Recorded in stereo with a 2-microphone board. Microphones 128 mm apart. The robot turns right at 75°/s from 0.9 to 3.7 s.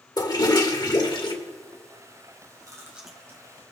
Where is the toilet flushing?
75° left, 1.5 m; by 1.3 s 110° left, 1.5 m.